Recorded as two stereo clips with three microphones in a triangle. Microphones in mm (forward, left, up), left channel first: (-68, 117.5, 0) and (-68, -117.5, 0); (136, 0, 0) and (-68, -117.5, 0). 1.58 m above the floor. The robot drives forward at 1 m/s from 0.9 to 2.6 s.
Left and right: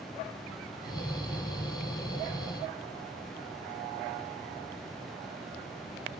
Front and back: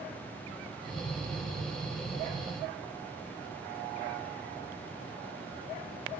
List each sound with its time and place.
Only background noise.